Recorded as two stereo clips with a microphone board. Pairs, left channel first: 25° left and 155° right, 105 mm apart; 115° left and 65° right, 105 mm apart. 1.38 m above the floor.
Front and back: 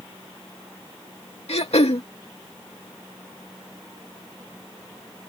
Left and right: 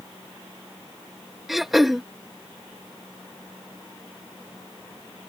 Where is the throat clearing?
20° left.